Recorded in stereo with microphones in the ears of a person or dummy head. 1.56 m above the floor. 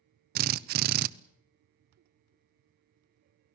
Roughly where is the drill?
Right.